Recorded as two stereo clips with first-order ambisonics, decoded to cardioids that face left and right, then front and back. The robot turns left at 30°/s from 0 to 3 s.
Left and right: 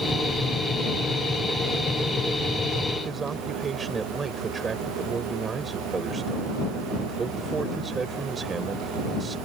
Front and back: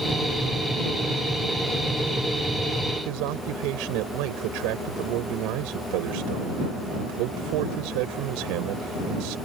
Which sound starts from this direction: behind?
A man speaking, at 3.0 s.